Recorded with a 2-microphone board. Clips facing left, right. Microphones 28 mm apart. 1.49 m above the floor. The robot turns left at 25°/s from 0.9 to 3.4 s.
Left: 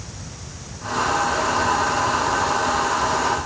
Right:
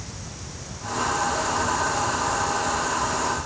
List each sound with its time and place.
Only background noise.